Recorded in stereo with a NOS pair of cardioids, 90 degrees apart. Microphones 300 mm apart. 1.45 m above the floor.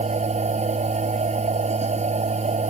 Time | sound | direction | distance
0.0 | a machine running | 25° right | ?